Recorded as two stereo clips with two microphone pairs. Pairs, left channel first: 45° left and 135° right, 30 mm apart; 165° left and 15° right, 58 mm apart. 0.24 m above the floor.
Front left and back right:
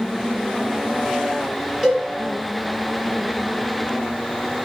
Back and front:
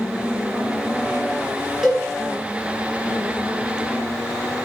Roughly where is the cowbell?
Right.